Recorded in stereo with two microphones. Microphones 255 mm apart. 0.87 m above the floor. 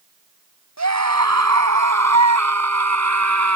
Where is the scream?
85° right; by 3.6 s 80° right.